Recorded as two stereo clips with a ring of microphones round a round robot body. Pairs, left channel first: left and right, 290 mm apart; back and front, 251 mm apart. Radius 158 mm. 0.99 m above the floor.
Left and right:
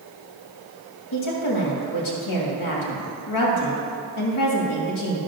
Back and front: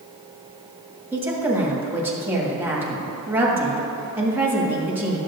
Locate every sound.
1.1 s a woman speaking: 80° left, 1.9 m